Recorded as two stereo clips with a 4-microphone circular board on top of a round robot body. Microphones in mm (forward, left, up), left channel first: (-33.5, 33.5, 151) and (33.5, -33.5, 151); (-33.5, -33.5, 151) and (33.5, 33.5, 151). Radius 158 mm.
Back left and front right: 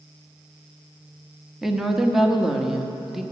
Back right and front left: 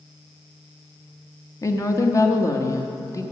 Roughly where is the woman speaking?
Behind right.